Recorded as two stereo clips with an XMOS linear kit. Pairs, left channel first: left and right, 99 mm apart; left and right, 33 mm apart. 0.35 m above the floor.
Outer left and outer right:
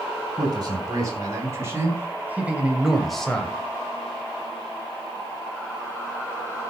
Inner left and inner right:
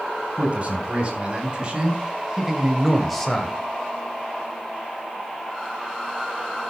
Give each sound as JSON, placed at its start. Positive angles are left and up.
{"t": 0.4, "sound": "a man speaking", "side_deg": -40, "distance_m": 4.5}